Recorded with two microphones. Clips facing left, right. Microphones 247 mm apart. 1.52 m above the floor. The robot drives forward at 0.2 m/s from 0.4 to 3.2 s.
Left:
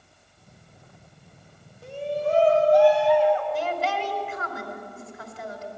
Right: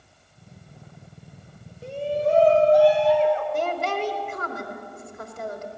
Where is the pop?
No pop in this recording.